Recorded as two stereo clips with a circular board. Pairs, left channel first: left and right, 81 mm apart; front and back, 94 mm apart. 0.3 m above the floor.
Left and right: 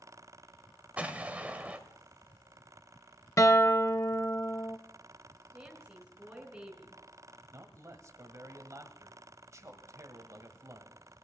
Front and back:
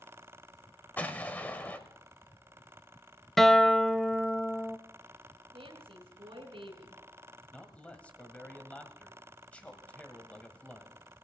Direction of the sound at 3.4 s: 85° left.